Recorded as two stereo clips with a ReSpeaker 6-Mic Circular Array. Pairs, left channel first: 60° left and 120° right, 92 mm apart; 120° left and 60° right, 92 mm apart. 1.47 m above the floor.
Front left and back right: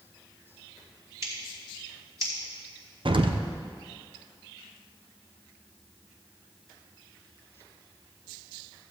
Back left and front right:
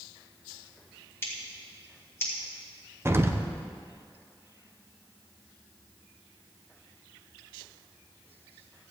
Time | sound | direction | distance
1.2 | scissors | 175° right | 2.5 m
3.0 | an explosion | 120° right | 0.7 m